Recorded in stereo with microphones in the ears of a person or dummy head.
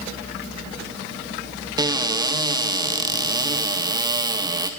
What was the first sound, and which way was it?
A cupboard door, 15° right (ahead or behind).